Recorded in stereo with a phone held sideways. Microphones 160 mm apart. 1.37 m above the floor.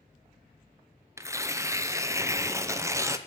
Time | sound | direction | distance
1.2 | tearing paper | 20° right (ahead or behind) | 0.6 m